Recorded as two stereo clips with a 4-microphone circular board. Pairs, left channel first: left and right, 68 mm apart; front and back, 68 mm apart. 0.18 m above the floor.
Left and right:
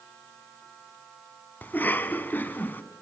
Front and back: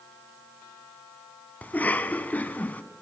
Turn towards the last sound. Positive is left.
turn(degrees=50)